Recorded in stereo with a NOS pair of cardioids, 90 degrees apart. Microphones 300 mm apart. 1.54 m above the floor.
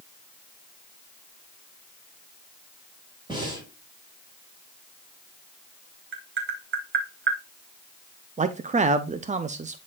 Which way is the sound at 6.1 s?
40° right.